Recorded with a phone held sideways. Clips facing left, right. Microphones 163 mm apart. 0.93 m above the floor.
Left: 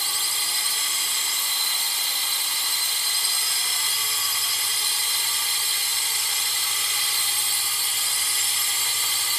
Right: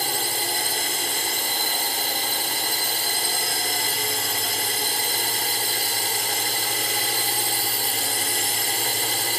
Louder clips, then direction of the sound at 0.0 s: Right 10 dB; 60° right (ahead or behind).